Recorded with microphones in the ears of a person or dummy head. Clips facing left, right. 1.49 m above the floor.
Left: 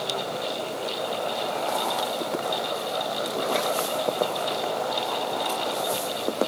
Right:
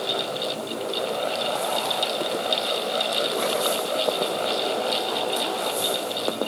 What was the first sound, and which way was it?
Only background noise.